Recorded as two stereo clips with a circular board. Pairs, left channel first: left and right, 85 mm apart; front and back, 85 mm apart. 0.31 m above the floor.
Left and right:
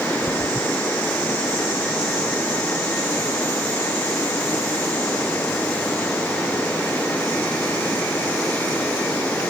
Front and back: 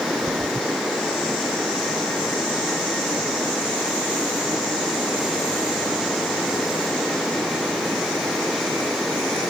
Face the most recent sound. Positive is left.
No sound to turn to.